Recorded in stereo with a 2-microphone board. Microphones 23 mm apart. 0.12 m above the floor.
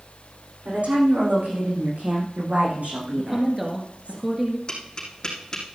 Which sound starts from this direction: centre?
A woman speaking, at 3.2 s.